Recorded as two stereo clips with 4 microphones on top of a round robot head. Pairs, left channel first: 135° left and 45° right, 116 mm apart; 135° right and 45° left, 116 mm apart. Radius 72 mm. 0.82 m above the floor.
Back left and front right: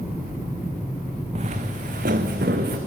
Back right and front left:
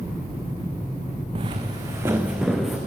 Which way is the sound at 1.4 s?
5° right.